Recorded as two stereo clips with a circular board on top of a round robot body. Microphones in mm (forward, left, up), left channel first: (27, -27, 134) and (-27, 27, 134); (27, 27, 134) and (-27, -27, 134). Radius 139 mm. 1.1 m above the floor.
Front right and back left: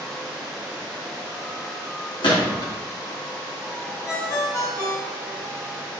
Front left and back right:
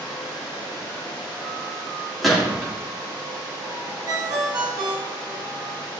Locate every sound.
2.2 s a gunshot: 45° right, 2.5 m
4.1 s a ringtone: 95° right, 1.6 m